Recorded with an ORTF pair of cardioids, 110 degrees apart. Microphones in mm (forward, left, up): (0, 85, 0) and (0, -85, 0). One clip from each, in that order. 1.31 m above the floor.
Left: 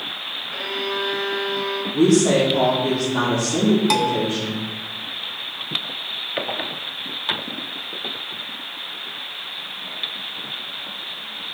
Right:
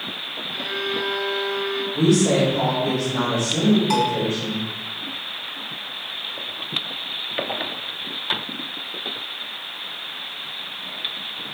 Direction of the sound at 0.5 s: 65° left.